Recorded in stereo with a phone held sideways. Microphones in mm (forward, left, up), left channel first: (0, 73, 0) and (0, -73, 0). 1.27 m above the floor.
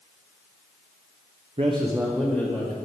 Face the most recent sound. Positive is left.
turn(degrees=15)  # may be behind; listen again after turning